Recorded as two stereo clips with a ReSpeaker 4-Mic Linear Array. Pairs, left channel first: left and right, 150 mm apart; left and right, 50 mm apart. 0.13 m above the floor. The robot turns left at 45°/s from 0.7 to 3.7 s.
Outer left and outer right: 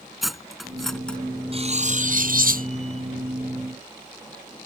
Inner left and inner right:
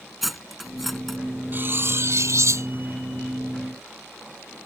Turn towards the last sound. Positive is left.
turn(degrees=-140)